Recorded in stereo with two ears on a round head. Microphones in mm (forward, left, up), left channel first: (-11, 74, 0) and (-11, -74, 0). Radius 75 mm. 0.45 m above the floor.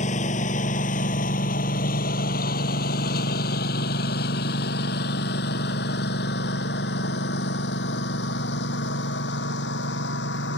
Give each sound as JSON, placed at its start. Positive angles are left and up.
{"t": 0.0, "sound": "a lawn mower", "side_deg": 45}